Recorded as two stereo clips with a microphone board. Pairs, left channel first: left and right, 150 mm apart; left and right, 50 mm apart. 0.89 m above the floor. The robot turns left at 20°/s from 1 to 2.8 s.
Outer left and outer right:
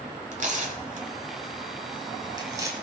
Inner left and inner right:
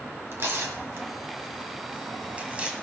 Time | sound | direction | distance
0.3 | tearing paper | 55° right (ahead or behind) | 1.9 m